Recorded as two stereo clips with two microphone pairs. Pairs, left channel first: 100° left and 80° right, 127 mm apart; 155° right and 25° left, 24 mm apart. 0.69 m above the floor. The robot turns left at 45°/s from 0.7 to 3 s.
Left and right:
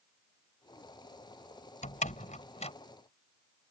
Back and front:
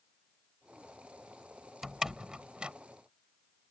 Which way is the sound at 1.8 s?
110° left.